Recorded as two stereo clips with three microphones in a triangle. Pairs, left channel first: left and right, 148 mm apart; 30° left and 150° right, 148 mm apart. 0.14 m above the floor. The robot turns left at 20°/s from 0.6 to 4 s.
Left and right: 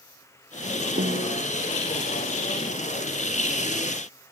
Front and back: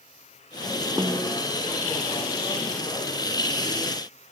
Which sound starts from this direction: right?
A snare drum, at 1.0 s.